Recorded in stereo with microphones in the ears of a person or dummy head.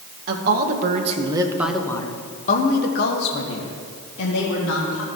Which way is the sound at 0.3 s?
55° right (ahead or behind).